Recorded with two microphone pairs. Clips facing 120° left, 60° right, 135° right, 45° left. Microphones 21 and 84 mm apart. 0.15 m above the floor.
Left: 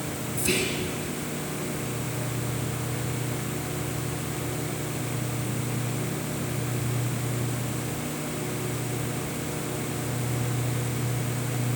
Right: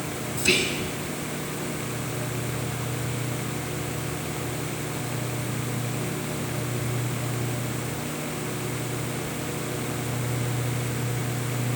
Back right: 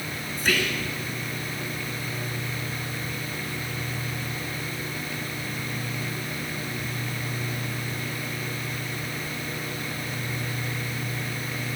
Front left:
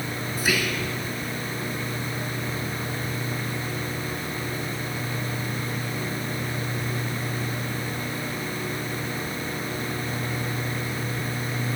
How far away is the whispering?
About 1.5 m.